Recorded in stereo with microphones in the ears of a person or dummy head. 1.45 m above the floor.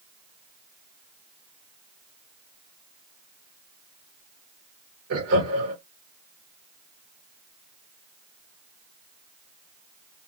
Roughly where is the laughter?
Right.